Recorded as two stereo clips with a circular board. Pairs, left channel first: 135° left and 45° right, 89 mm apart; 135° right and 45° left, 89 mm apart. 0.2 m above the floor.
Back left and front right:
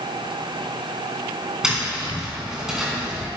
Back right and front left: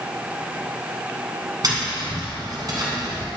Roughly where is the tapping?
Ahead left.